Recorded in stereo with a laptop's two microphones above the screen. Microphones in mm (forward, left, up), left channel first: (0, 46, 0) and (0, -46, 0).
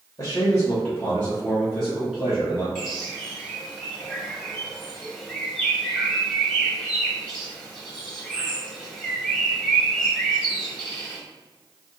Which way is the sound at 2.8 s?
Centre (ahead or behind).